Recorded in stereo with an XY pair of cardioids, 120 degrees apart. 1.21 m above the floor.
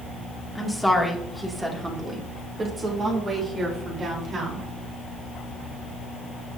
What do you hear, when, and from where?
0.6 s a woman speaking: straight ahead, 2.5 m; by 4.7 s 45° right, 4.5 m